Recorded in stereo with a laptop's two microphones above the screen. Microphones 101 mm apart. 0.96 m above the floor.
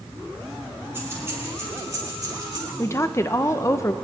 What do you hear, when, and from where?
0.9 s keys jangling: 20° right (ahead or behind), 6 m; by 2.7 s 45° right (ahead or behind), 4 m
2.8 s a woman speaking: 25° left (ahead or behind), 0.6 m